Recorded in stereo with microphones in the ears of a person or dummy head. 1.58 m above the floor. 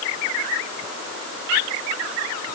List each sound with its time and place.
Only background noise.